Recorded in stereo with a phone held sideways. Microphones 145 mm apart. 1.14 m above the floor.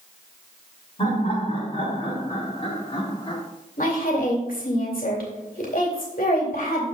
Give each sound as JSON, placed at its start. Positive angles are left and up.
{"t": 1.0, "sound": "laughter", "side_deg": 45, "distance_m": 3.0}
{"t": 3.8, "sound": "a woman speaking", "side_deg": 80, "distance_m": 2.5}